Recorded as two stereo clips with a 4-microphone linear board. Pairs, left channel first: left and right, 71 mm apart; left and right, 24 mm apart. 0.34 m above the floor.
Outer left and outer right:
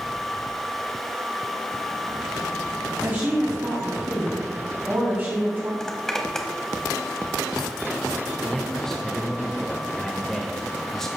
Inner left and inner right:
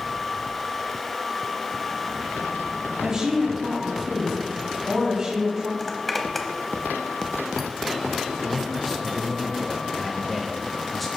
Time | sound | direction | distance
3.0 | a woman speaking | 30° right (ahead or behind) | 2.5 m
5.8 | a zipper | 10° left (ahead or behind) | 0.9 m
8.4 | a man speaking | 5° left (ahead or behind) | 0.9 m